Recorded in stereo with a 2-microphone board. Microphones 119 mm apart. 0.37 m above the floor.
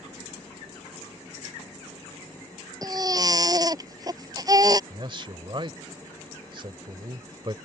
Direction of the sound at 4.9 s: 40° right (ahead or behind).